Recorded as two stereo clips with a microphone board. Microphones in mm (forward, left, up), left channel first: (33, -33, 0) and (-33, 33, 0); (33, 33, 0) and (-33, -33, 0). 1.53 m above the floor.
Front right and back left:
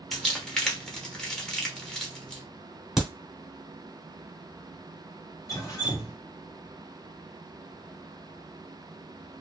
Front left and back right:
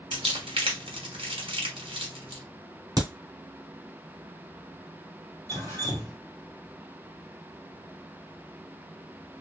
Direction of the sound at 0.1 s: 130° right.